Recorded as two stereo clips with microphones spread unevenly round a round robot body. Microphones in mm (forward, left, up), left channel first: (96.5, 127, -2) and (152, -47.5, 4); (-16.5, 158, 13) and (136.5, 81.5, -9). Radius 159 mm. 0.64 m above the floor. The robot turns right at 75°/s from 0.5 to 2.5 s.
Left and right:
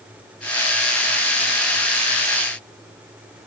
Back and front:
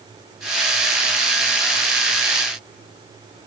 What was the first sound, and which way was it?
Only background noise.